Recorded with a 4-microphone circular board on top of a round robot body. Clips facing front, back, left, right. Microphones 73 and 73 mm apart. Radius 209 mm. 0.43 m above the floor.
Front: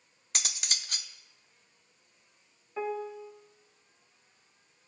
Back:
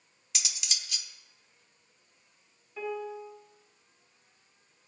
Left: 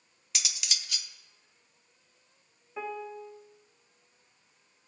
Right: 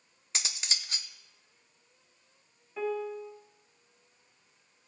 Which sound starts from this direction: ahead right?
Cutlery clinking, at 0.3 s.